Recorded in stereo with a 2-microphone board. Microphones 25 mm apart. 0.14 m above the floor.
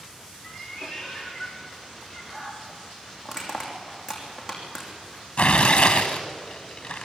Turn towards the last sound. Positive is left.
turn(degrees=40)  # may be behind; listen again after turning